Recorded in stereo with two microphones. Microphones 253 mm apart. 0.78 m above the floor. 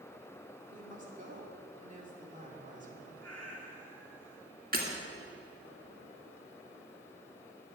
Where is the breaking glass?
35° right (ahead or behind), 2 m.